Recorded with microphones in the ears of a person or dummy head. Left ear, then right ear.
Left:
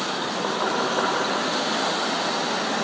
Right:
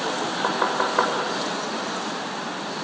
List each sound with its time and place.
0.4 s knocking: 80° right, 7 m